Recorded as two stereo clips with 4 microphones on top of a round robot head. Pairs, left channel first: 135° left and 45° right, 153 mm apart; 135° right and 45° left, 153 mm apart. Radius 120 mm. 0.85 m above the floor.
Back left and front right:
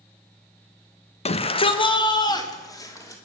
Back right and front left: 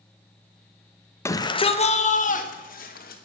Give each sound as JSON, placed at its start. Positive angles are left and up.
{"t": 1.2, "sound": "a shout", "azimuth_deg": 160, "distance_m": 1.2}